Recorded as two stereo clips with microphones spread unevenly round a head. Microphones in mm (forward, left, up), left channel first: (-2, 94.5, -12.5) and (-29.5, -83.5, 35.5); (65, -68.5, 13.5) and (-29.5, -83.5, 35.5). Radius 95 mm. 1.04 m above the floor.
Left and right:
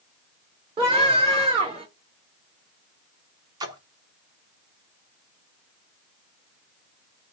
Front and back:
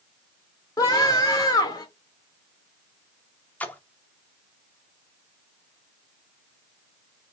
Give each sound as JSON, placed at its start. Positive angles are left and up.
{"t": 0.8, "sound": "a scream", "azimuth_deg": -35, "distance_m": 1.3}
{"t": 3.6, "sound": "a splash", "azimuth_deg": -75, "distance_m": 0.7}